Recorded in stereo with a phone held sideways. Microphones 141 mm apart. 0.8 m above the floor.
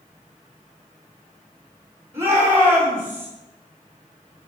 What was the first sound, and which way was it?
A shout, 15° right (ahead or behind).